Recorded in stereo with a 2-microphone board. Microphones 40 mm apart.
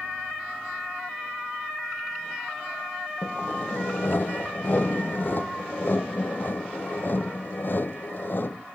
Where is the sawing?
55° left (ahead or behind).